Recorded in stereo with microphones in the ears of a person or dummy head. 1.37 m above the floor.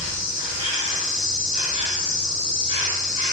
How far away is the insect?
About 1.5 m.